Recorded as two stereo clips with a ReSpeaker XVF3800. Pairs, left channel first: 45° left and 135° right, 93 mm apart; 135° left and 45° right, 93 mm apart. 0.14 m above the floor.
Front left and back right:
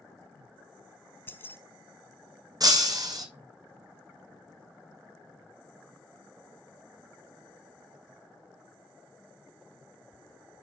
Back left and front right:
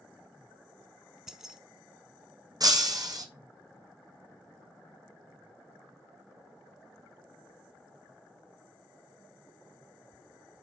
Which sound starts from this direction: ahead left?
Keys jangling, at 1.3 s.